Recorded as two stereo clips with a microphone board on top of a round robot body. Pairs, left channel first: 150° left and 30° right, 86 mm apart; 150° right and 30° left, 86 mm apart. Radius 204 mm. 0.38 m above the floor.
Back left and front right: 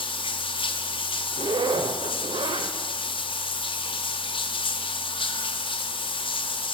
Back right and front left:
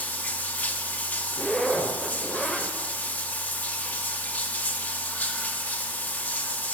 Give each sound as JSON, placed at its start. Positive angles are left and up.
{"t": 0.0, "sound": "running water", "azimuth_deg": 135, "distance_m": 0.7}
{"t": 1.3, "sound": "a zipper", "azimuth_deg": -60, "distance_m": 0.6}